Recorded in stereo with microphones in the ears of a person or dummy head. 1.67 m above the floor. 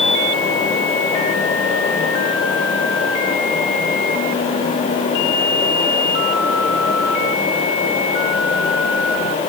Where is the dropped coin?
No dropped coin in this recording.